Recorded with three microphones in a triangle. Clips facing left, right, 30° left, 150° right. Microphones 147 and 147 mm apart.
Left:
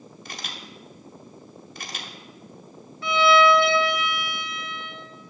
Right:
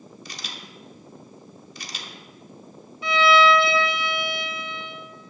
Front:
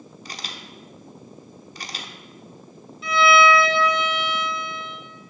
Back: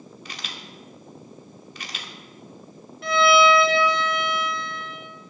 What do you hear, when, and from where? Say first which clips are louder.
0.2 s a camera shutter: left 4 dB, front 3 dB; 75° left, 1.1 m
3.0 s a violin: even, even; 160° right, 2.5 m